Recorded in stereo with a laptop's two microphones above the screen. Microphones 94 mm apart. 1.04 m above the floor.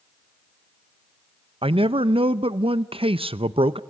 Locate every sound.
1.6 s a man speaking: 75° right (ahead or behind), 0.6 m